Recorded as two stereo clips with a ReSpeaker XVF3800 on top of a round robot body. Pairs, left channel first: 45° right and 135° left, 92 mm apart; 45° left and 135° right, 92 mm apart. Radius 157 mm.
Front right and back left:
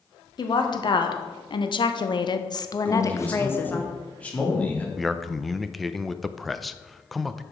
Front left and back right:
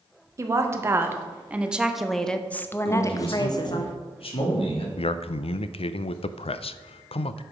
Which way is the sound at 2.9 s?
30° left.